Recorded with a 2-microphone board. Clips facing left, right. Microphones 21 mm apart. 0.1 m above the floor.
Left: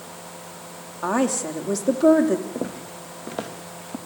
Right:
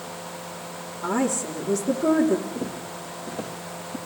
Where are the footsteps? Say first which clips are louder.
Left 1 dB; 75° left (ahead or behind), 2.5 m; by 4.0 s 65° left (ahead or behind), 3 m.